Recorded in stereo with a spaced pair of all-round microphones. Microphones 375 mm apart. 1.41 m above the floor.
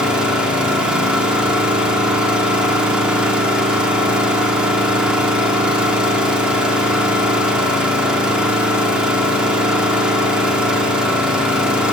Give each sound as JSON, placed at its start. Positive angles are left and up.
{"t": 0.0, "sound": "an engine running", "side_deg": -5, "distance_m": 2.5}